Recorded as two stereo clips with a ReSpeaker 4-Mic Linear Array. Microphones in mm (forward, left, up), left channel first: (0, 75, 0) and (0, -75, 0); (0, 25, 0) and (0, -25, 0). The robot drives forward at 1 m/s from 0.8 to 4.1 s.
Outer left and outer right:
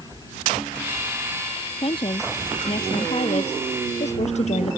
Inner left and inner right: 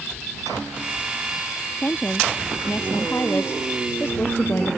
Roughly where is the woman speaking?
Left.